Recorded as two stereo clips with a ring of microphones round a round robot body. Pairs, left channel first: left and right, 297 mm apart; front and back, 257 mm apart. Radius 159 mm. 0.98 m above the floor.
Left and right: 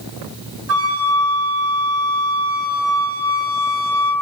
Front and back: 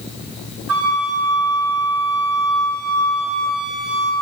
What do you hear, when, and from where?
0.7 s a flute: 135° right, 5 m